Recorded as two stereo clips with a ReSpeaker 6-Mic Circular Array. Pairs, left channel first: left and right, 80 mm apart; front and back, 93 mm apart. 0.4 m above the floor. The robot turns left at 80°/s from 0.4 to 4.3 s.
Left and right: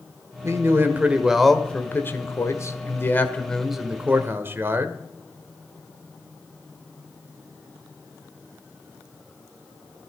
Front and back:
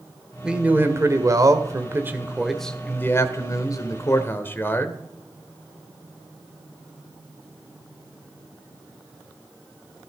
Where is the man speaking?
100° right, 1.6 m; by 5.0 s 50° right, 1.6 m.